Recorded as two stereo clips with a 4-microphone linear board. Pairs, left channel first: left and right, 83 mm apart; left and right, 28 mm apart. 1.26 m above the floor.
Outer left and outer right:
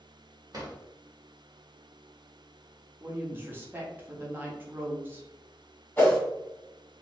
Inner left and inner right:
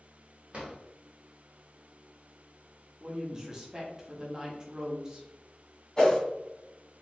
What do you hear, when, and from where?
0.5 s a drawer: 45° right (ahead or behind), 1.0 m
3.0 s a woman speaking: 25° right (ahead or behind), 0.7 m
6.0 s a whoosh: 20° left (ahead or behind), 1.2 m